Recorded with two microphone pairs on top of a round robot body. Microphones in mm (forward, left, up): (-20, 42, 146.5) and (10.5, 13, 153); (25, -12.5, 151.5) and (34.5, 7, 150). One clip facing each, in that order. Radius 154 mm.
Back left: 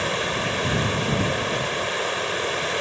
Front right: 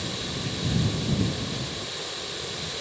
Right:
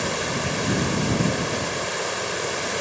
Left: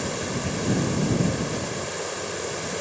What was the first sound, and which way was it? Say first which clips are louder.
Running water: back left 9 dB, right 3 dB; 175° left.